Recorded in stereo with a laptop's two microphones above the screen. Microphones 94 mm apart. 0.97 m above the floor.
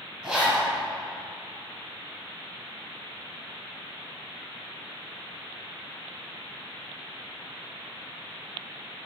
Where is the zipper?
5° right (ahead or behind), 2 m.